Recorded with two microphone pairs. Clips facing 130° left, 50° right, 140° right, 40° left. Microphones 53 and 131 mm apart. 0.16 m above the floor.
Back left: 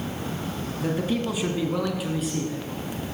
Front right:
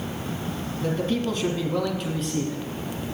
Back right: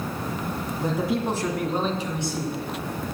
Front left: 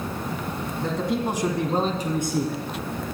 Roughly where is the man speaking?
Behind.